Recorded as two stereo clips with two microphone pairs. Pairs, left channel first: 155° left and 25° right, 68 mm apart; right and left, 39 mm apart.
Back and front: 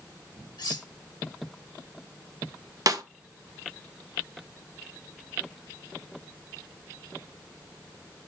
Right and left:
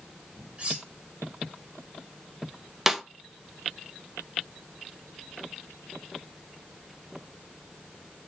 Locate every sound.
0.6 s cutlery clinking: 145° left, 1.7 m
2.9 s a snare drum: 5° left, 0.8 m